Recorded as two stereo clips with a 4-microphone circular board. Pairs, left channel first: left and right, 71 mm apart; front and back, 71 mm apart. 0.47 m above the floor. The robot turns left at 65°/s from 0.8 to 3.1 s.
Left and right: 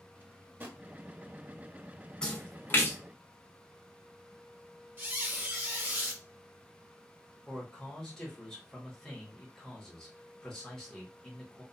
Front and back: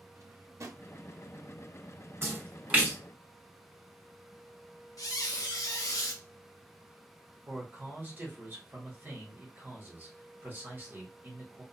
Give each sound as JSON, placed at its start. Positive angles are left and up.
{"t": 0.1, "sound": "a drawer", "azimuth_deg": -150, "distance_m": 0.5}
{"t": 2.2, "sound": "a splash", "azimuth_deg": 155, "distance_m": 1.0}
{"t": 5.0, "sound": "a squeak", "azimuth_deg": -25, "distance_m": 0.8}
{"t": 7.5, "sound": "a man speaking", "azimuth_deg": 165, "distance_m": 1.2}